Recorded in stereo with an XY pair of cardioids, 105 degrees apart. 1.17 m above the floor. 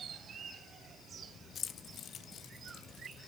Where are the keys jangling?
55° left, 1.1 m; by 3.2 s 75° left, 2 m.